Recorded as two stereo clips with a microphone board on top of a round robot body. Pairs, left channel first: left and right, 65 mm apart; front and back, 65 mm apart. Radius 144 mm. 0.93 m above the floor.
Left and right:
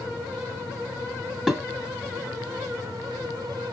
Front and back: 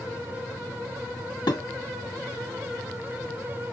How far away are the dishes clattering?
About 1.7 m.